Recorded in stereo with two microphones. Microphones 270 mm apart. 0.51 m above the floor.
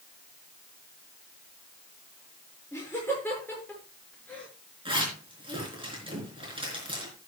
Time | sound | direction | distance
2.7 | laughter | 10° left (ahead or behind) | 6.5 m
4.8 | a zipper | 20° right (ahead or behind) | 4.5 m